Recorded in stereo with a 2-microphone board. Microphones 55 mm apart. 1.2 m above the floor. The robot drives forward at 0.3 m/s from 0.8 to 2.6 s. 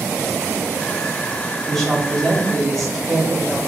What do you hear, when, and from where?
1.7 s a woman speaking: 5° left (ahead or behind), 1.2 m